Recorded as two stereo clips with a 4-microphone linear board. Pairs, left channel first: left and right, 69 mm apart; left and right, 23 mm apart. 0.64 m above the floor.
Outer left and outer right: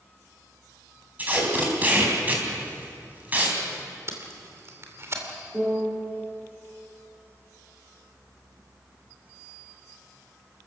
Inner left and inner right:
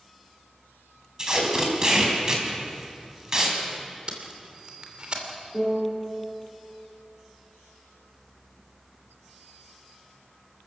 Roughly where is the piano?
Centre.